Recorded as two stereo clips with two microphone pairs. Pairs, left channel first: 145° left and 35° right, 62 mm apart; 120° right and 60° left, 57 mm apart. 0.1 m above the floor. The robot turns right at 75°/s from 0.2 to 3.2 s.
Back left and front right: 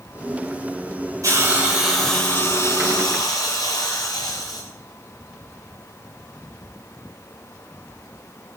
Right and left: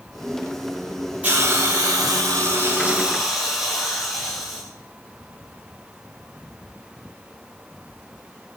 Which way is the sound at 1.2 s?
5° right.